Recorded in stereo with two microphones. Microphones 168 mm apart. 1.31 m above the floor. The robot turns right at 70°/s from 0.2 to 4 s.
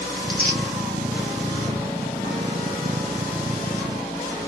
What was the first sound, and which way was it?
Tearing paper, 65° left (ahead or behind).